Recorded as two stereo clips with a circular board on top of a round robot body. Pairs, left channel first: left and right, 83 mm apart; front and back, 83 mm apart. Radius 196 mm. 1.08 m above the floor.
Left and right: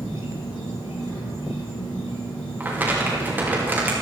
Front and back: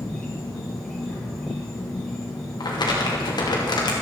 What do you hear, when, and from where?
0.0 s an insect: 80° left, 1.9 m
2.6 s crumpling: 25° right, 2.5 m